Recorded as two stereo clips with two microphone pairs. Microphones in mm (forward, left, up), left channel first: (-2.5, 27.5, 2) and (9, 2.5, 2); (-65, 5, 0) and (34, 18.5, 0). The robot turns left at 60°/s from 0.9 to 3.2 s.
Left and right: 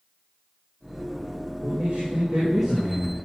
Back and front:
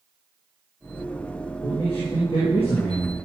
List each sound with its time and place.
1.6 s a man speaking: 90° right, 5.5 m; by 3.1 s 175° left, 5.5 m